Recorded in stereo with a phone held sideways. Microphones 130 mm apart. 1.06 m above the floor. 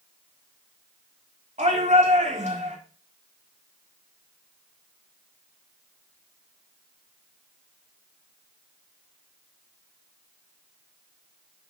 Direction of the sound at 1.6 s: 65° right (ahead or behind).